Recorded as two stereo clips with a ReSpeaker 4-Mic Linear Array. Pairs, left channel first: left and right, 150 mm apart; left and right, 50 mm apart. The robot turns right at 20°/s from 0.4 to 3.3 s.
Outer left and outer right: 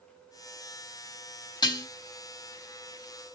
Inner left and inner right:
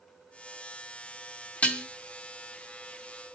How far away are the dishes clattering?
About 0.7 m.